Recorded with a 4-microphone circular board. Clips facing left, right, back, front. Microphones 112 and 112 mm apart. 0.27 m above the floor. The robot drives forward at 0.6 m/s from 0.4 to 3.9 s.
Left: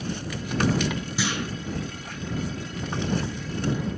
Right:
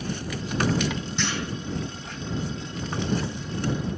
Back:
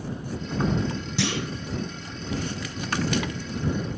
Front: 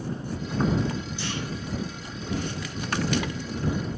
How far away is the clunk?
About 2.0 m.